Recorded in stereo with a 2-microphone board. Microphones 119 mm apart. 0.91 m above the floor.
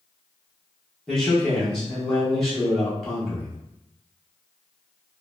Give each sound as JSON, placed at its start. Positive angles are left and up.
{"t": 1.1, "sound": "a man speaking", "side_deg": 5, "distance_m": 1.3}